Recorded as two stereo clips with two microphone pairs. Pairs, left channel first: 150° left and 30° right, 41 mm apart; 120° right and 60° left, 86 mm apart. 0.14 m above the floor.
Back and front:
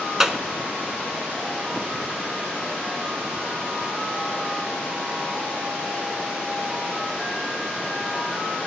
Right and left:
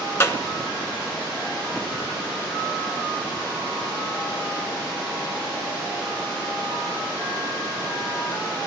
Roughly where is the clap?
Right.